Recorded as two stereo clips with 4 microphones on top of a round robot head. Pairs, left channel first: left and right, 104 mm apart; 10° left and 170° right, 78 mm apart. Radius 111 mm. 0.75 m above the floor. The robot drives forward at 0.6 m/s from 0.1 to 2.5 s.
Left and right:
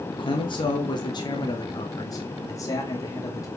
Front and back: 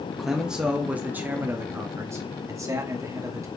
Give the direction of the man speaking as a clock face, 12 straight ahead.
9 o'clock.